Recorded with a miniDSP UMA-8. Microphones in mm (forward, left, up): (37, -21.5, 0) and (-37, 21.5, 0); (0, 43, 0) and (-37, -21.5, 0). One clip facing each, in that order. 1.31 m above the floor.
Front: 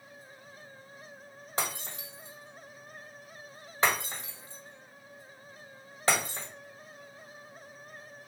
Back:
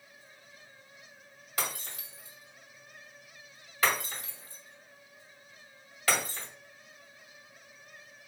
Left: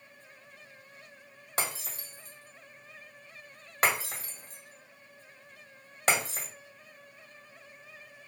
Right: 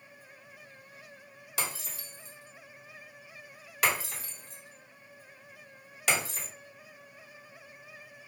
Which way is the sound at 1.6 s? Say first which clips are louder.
Front 2 dB, left 2 dB; 25° left.